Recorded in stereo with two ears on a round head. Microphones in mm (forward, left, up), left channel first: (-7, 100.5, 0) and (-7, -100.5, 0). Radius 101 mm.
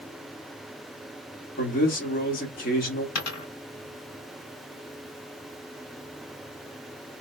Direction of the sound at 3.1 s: 85° left.